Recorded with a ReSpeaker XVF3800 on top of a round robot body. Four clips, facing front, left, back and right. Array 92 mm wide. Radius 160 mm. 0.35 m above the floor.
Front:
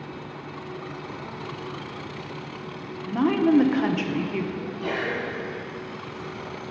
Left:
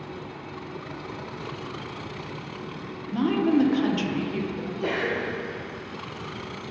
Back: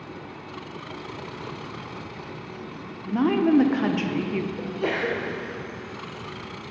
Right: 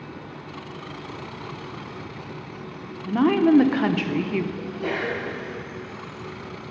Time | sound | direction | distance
3.0 | a woman speaking | 90° right | 1.0 m
4.6 | a sneeze | 175° left | 2 m